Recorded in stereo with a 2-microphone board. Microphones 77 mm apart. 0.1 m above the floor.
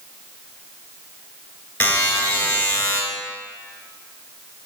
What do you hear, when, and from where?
1.8 s a buzzer: 25° left (ahead or behind), 1.4 m